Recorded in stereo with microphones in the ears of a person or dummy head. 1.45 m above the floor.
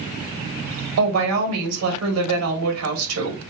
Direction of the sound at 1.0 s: 80° right.